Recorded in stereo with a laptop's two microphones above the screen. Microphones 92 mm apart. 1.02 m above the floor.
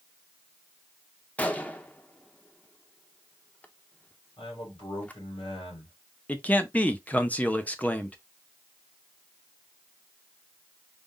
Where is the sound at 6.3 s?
15° left (ahead or behind), 0.6 m.